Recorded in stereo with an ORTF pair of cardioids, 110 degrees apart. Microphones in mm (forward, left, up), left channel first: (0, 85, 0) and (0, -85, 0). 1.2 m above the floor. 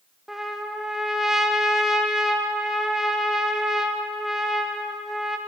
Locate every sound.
0.3 s a trumpet: straight ahead, 0.5 m